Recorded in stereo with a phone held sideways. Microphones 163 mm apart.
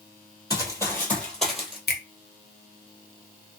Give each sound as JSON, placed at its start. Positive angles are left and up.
{"t": 0.5, "sound": "running footsteps", "side_deg": 20, "distance_m": 1.2}
{"t": 1.9, "sound": "a finger snap", "side_deg": 75, "distance_m": 0.7}